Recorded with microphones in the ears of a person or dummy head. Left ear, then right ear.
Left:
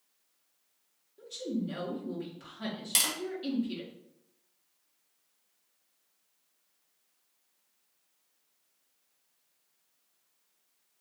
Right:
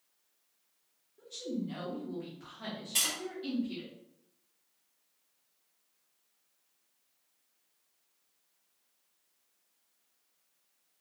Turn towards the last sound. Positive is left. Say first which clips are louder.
# left 2 dB
turn(degrees=70)  # may be behind; listen again after turning